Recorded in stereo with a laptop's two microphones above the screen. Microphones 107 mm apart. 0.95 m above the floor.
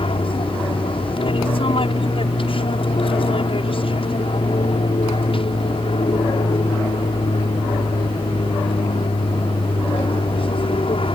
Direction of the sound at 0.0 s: 55° left (ahead or behind).